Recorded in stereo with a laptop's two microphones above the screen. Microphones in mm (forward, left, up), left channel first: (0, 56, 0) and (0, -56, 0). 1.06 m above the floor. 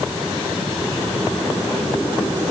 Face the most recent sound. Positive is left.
No sound to turn to.